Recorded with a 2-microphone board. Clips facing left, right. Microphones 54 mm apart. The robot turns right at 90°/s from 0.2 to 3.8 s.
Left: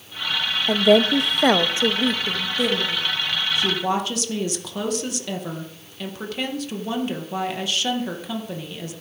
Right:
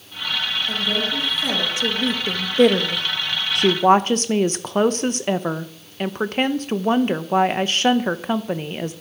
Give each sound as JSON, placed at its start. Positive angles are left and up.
{"t": 0.7, "sound": "a woman speaking", "azimuth_deg": 50, "distance_m": 1.1}
{"t": 3.5, "sound": "a woman speaking", "side_deg": -70, "distance_m": 0.7}